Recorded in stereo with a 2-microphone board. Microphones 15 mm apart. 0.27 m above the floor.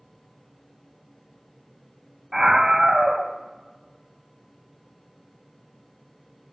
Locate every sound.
2.3 s a scream: 35° right (ahead or behind), 1.2 m